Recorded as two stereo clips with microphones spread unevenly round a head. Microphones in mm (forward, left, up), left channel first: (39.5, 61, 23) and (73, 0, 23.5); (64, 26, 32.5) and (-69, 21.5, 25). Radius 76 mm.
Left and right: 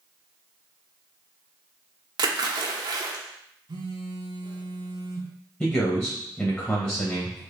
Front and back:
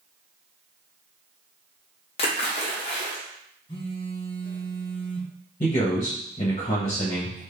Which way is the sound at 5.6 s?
50° left.